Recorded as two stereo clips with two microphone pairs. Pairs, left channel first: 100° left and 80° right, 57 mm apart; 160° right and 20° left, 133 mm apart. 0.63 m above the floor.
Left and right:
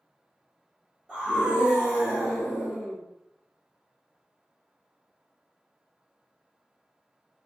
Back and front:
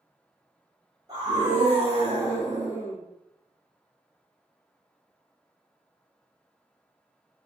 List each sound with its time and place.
1.1 s a scream: 15° right, 1.0 m; by 3.0 s 10° right, 1.9 m